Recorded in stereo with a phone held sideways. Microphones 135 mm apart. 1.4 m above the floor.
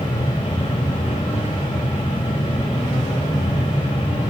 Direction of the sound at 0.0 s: 35° left (ahead or behind).